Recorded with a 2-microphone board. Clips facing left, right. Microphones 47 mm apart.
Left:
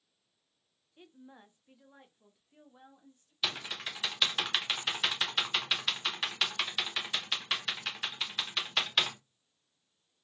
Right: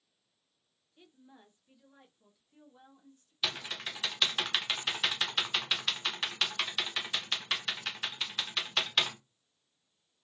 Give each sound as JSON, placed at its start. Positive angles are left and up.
{"t": 1.0, "sound": "a woman speaking", "side_deg": 25, "distance_m": 0.5}
{"t": 3.4, "sound": "typing on a keyboard", "side_deg": 0, "distance_m": 0.6}